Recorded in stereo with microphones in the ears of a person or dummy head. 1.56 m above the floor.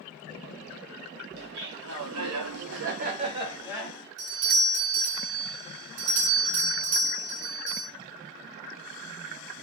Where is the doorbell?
75° right (ahead or behind), 0.6 m.